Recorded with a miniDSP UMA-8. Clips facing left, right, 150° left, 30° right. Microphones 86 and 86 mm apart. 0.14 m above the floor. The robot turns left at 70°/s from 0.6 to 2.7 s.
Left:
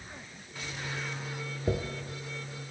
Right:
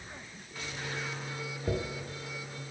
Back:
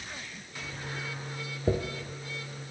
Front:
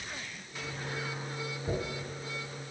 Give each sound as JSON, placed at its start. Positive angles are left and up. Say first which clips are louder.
{"t": 1.7, "sound": "a dropped coin", "louder": "left 2 dB, back 6 dB", "azimuth_deg": 160, "distance_m": 0.9}